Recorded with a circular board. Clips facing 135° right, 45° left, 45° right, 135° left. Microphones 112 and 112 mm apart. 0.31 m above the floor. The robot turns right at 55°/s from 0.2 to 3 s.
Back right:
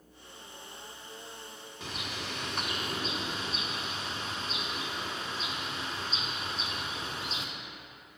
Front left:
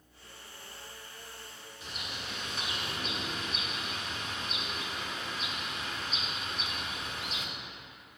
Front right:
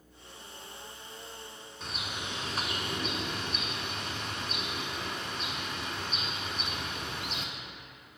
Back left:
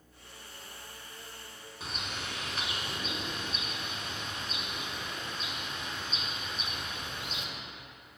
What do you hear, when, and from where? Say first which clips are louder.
1.8 s a bird: back right 4 dB, front right 1 dB; 140° right, 0.6 m; by 7.5 s 75° right, 0.6 m